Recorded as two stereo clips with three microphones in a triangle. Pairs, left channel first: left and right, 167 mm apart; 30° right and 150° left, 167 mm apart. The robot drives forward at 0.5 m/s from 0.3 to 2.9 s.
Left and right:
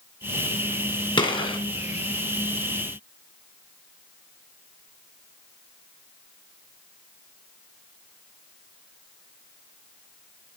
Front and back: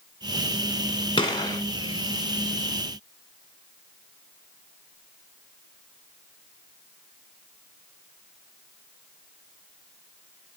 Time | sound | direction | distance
1.2 | a gunshot | 30° left | 2 m